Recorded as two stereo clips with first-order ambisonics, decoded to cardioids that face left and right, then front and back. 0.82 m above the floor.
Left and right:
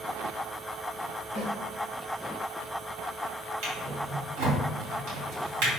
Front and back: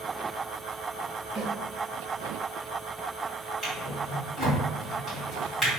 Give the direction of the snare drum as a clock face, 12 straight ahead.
4 o'clock.